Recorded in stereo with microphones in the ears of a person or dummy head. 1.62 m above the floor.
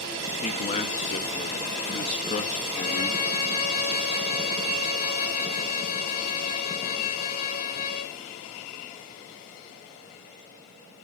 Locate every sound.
0.4 s a man speaking: 40° left (ahead or behind), 1.5 m
2.7 s a violin: 50° left (ahead or behind), 1.3 m